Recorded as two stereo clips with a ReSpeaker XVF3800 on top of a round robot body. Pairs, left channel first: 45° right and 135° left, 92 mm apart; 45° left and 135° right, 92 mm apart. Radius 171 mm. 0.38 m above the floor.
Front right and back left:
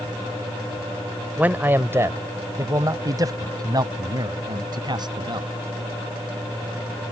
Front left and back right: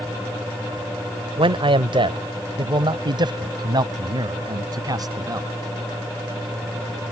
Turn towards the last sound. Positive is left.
turn(degrees=175)